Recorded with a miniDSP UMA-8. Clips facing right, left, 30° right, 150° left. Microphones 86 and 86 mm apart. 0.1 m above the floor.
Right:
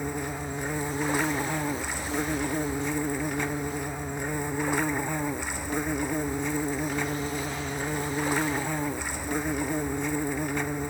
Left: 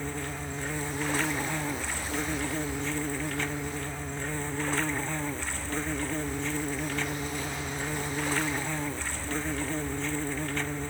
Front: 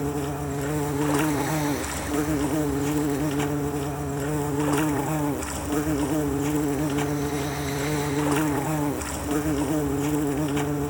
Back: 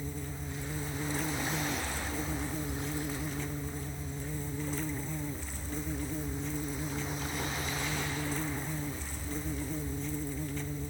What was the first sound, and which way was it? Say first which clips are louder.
An insect: right 3 dB, front 13 dB; 15° right.